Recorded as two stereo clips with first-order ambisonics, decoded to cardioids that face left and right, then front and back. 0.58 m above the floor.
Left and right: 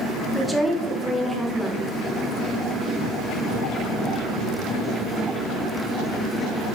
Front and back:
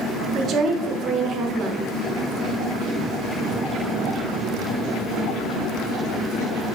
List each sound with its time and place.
0.3 s a woman speaking: straight behind, 0.6 m